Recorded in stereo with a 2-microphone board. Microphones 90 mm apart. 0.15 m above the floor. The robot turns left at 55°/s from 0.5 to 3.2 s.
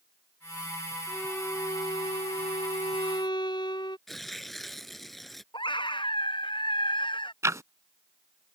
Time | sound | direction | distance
1.1 | a violin | 170° left | ?
4.1 | tearing paper | centre (ahead or behind) | ?
5.5 | a scream | 60° left (ahead or behind) | ?
7.4 | ticking | 35° right (ahead or behind) | ?